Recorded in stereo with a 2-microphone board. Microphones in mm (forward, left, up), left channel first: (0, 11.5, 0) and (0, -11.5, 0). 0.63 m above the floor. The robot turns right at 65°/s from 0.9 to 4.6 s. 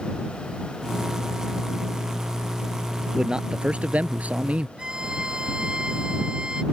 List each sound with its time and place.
3.1 s a man speaking: 155° right; by 4.7 s 60° right
4.8 s a violin: 40° right (ahead or behind)